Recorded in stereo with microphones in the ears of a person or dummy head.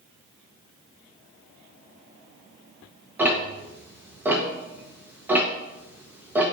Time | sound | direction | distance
3.2 | ticking | 15° right (ahead or behind) | 1.1 m